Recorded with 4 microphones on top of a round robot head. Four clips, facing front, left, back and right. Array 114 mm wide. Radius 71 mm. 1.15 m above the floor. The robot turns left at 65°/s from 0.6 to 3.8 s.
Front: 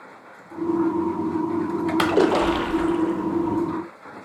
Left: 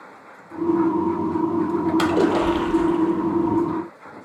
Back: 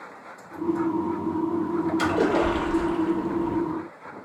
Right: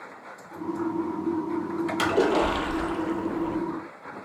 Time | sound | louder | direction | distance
2.0 | a splash | left 1 dB, front 5 dB | 25° left | 0.5 m